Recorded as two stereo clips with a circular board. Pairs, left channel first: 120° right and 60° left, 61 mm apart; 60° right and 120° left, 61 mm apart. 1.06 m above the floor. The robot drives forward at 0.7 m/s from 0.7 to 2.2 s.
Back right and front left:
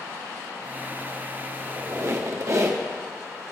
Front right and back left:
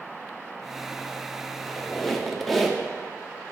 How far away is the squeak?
About 1.5 m.